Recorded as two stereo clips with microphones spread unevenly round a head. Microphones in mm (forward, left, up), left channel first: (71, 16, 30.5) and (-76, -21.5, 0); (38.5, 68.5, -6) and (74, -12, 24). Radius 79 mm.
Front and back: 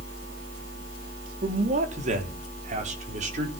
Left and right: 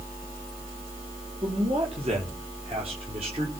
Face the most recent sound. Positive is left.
turn(degrees=-120)